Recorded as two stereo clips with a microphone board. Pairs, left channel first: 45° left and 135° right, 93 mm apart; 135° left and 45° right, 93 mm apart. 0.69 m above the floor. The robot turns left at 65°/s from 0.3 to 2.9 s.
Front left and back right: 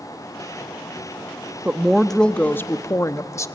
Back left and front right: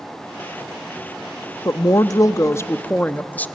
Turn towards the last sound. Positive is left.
turn(degrees=75)